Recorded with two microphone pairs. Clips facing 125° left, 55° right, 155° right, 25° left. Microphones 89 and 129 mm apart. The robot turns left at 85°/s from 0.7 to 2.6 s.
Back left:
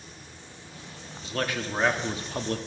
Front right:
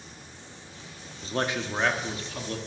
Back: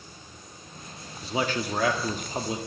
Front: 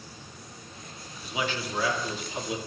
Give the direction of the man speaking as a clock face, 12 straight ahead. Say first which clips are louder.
Front right 1 dB, back 4 dB; 3 o'clock.